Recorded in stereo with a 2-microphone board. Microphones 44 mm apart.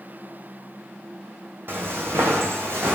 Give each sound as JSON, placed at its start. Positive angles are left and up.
{"t": 1.7, "sound": "footsteps", "side_deg": -55, "distance_m": 0.7}